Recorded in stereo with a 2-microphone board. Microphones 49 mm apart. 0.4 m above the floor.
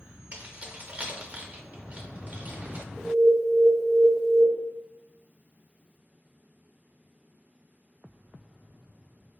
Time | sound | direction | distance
0.3 | keys jangling | 30° right (ahead or behind) | 0.7 m
3.0 | an alarm | 5° right (ahead or behind) | 0.8 m